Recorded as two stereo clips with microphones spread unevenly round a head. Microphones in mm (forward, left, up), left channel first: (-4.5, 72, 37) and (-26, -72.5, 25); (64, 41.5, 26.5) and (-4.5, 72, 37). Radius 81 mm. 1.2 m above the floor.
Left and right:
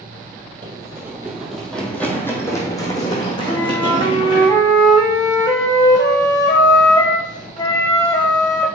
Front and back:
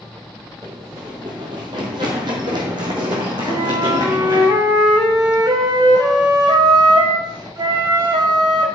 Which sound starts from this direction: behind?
Running footsteps, at 0.6 s.